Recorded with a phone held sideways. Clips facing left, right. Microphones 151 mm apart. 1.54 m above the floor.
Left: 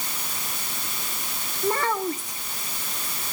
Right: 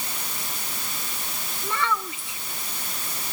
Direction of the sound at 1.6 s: 45° left (ahead or behind).